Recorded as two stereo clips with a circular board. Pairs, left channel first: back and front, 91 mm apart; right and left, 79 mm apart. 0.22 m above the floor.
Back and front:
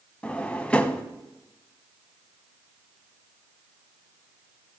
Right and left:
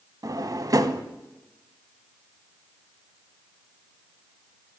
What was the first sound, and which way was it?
A drawer, 105° left.